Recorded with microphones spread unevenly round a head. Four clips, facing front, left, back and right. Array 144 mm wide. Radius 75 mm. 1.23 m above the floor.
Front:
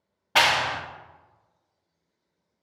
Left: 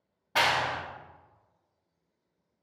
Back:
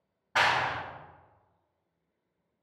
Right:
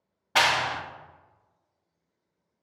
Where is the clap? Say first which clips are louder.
Right 2 dB, front 4 dB; 40° right, 0.5 m.